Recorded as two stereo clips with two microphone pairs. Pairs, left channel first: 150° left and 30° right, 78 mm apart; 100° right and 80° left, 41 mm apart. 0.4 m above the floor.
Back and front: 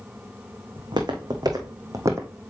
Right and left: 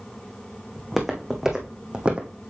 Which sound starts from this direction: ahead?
Footsteps, at 0.8 s.